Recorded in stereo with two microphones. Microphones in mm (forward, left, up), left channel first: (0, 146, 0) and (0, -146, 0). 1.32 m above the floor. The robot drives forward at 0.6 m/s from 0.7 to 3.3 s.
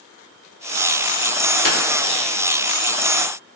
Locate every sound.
1.6 s a clap: 85° left, 3 m; by 1.8 s 80° left, 3 m